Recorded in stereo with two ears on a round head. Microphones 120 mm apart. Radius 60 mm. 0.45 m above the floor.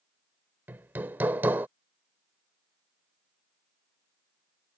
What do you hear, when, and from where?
0.7 s hammering: 15° right (ahead or behind)